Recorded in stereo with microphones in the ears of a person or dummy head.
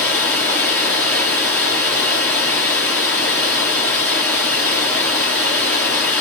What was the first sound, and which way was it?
Running water, 10° left (ahead or behind).